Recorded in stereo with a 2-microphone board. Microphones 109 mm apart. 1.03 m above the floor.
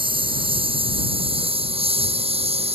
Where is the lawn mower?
50° right (ahead or behind); by 2.8 s 65° right (ahead or behind).